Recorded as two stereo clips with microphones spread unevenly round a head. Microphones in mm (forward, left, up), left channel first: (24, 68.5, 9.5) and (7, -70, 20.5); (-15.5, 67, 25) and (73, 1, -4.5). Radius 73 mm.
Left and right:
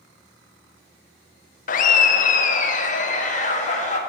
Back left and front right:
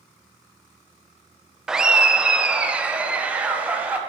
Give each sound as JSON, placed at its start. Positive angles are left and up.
{"t": 1.7, "sound": "laughter", "azimuth_deg": 55, "distance_m": 0.6}